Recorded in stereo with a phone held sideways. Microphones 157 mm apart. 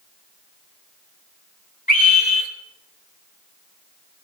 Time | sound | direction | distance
1.9 | a scream | 65° left (ahead or behind) | 4 m